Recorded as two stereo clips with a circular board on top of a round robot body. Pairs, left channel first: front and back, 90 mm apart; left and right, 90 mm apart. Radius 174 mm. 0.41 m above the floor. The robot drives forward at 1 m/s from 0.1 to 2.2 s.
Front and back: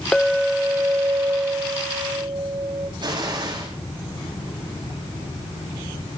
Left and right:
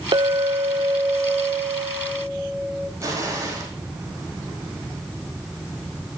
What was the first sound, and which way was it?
A clink, 80° right.